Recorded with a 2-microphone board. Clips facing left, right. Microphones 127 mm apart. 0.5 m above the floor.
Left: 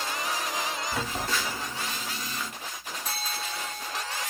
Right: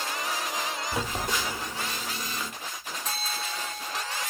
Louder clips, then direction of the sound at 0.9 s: Right 2 dB; 20° right (ahead or behind).